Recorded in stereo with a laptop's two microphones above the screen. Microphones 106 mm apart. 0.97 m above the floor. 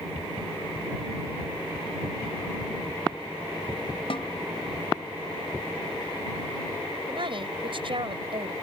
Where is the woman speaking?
55° right (ahead or behind).